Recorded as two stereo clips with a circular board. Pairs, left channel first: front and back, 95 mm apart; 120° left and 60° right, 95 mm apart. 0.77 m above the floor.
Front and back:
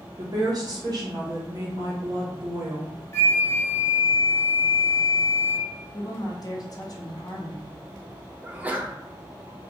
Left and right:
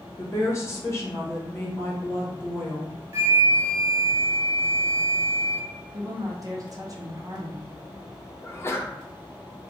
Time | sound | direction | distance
0.2 | a woman speaking | 165° left | 0.9 m
3.1 | a flute | 35° right | 0.7 m
5.9 | a woman speaking | 25° right | 0.7 m
8.4 | a sneeze | 130° left | 0.6 m